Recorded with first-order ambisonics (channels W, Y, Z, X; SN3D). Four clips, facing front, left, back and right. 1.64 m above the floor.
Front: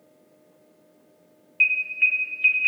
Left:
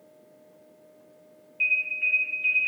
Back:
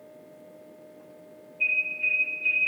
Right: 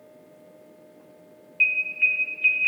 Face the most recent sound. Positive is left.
turn(degrees=-25)